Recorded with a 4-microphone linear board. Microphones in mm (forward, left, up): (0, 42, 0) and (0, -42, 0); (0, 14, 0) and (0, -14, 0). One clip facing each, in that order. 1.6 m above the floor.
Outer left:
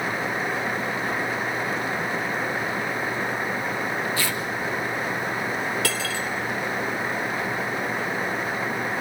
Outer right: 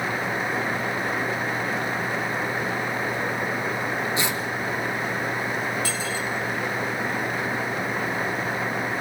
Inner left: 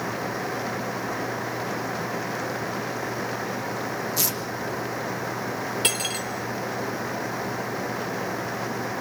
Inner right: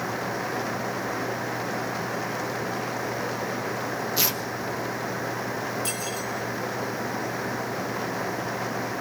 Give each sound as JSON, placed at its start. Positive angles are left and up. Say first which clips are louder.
{"t": 4.2, "sound": "tearing paper", "louder": "outer right 1 dB, inner right 4 dB", "side_deg": -20, "distance_m": 3.5}
{"t": 5.8, "sound": "cutlery clinking", "louder": "outer left 1 dB, inner left 4 dB", "side_deg": 75, "distance_m": 3.5}